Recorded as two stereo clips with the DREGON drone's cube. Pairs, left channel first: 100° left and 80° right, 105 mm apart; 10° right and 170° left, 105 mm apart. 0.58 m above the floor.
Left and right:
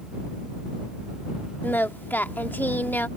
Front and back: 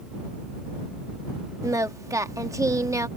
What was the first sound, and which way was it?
Singing, 150° left.